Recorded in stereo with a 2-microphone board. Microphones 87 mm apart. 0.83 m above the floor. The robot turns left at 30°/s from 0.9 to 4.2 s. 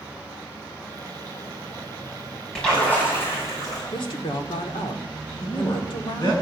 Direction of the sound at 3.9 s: 65° left (ahead or behind).